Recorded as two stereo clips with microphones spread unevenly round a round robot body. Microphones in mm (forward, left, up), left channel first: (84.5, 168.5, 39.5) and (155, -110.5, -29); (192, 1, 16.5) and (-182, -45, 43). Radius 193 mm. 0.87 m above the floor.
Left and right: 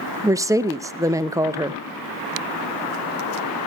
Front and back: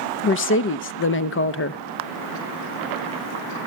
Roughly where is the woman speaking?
Ahead.